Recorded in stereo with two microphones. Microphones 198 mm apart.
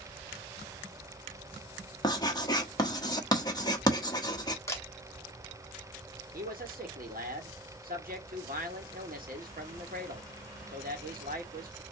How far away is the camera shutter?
About 1.3 m.